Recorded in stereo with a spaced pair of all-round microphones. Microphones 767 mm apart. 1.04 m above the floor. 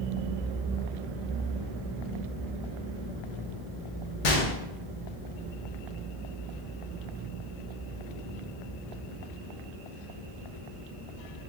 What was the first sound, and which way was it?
A gunshot, 85° left.